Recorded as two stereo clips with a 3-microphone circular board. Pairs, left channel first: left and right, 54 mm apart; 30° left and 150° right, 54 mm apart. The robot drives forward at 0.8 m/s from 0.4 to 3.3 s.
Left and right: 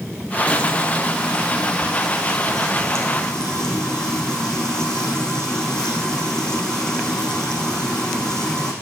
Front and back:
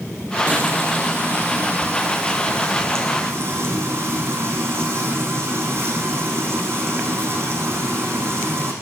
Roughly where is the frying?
Behind.